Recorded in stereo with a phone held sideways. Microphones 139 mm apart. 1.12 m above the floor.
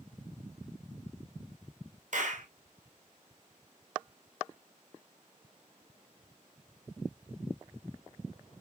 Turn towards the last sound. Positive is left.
turn(degrees=-65)  # may be behind; listen again after turning